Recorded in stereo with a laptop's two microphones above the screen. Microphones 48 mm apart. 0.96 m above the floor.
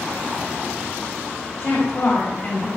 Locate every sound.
1.6 s a woman speaking: 30° left (ahead or behind), 2.5 m